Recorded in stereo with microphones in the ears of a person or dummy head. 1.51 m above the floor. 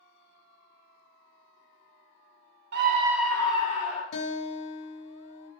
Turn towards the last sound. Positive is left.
turn(degrees=70)  # may be behind; listen again after turning